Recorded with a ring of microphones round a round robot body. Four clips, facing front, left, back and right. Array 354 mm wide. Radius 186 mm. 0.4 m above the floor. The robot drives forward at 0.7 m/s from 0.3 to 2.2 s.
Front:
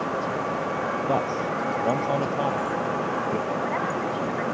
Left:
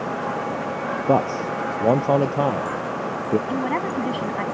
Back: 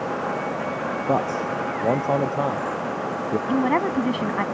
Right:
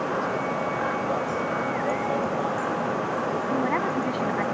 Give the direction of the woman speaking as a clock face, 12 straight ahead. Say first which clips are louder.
Left 1 dB, back 5 dB; 6 o'clock.